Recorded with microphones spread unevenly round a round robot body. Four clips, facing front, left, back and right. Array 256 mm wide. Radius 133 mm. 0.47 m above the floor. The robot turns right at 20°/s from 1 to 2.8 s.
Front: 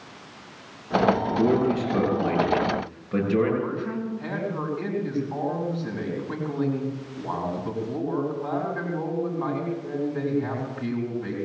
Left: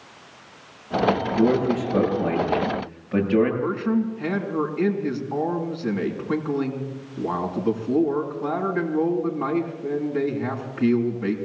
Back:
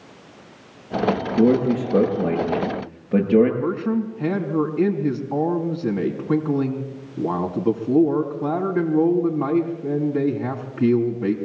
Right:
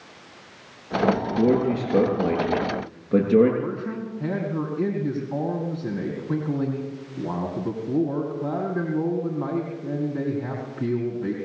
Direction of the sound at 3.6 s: 175° right.